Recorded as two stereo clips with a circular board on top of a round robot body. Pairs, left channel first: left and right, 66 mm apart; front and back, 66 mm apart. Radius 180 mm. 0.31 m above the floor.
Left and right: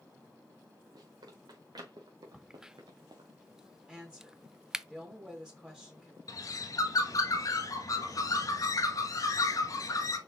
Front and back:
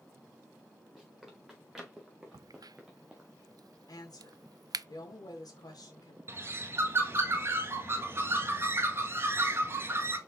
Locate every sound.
0.9 s running footsteps: 95° right, 4 m; by 3.3 s 100° right, 2 m
2.3 s a crack: 170° right, 0.5 m
3.9 s a woman speaking: 5° right, 3 m
6.3 s a bird: 125° left, 1.1 m